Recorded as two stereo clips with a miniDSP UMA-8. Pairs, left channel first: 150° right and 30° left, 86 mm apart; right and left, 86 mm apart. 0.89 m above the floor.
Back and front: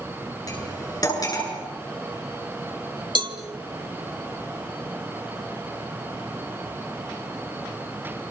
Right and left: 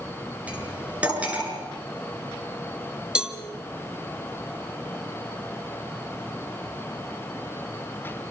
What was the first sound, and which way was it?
Cutlery clinking, 165° left.